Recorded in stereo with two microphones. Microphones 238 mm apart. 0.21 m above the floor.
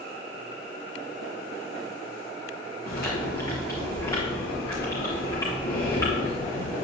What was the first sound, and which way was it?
Chewing, 15° left (ahead or behind).